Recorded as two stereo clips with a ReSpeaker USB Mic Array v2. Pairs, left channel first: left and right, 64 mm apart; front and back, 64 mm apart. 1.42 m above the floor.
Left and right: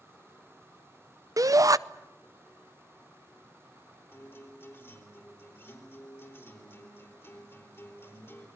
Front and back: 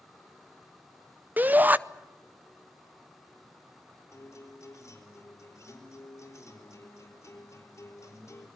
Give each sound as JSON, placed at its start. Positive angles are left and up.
{"t": 1.4, "sound": "a shout", "azimuth_deg": -120, "distance_m": 0.6}
{"t": 4.1, "sound": "a guitar", "azimuth_deg": 40, "distance_m": 4.0}